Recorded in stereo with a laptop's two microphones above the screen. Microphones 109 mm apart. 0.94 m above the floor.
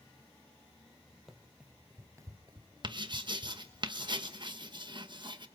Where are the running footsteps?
Centre (ahead or behind), 1.9 m; by 3.8 s 40° right (ahead or behind), 2 m.